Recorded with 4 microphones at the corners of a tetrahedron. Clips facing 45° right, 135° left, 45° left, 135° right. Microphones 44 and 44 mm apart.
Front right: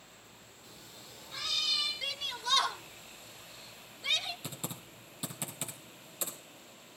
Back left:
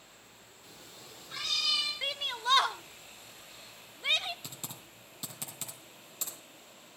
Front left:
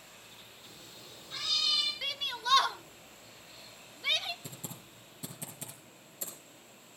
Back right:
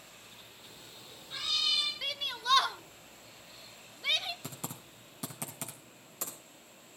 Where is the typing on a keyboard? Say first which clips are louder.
Front right 4 dB, back right 3 dB; 120° right, 2 m.